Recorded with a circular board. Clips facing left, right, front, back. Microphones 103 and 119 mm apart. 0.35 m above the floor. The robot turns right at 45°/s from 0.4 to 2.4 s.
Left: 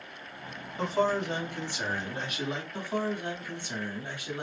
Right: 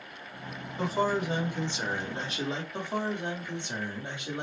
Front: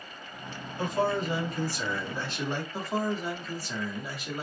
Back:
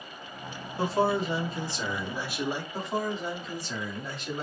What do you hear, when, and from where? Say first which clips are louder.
0.8 s a man speaking: left 1 dB, back 2 dB; 175° right, 1.3 m; by 2.6 s 105° right, 1.3 m
2.7 s a man speaking: left 2 dB, front 3 dB; 70° right, 1.3 m